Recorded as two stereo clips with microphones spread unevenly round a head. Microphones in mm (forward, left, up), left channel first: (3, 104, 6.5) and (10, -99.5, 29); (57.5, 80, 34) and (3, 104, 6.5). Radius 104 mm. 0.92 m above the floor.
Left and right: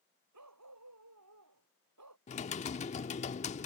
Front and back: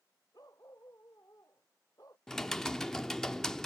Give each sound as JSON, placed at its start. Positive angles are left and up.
{"t": 0.3, "sound": "a dog barking", "azimuth_deg": -95}
{"t": 2.3, "sound": "typing on a keyboard", "azimuth_deg": 35}